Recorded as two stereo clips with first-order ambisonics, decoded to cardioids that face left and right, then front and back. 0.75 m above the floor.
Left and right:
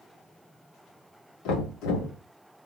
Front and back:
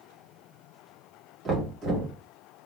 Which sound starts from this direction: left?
Knocking, at 1.4 s.